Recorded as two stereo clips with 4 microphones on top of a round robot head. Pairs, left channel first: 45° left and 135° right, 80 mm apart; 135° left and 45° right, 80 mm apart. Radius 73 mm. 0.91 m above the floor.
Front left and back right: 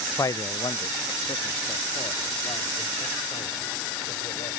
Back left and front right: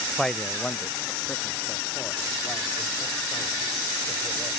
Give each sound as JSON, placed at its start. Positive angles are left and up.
{"t": 0.2, "sound": "a man speaking", "azimuth_deg": 50}